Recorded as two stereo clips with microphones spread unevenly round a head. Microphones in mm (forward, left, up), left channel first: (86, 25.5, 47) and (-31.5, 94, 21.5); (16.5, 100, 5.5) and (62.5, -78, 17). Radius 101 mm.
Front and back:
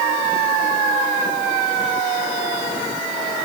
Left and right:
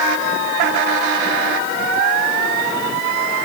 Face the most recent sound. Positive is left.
No sound to turn to.